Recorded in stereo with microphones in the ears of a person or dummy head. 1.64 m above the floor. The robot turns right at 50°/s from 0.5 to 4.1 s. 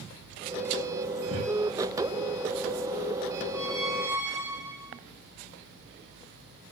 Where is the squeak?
5° left (ahead or behind), 4 m; by 5.0 s 20° right (ahead or behind), 4 m.